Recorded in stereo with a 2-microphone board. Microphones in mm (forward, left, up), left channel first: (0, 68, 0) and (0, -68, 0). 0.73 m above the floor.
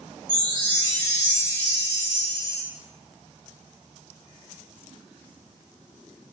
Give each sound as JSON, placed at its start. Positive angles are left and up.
{"t": 0.3, "sound": "a chime", "side_deg": 25, "distance_m": 1.5}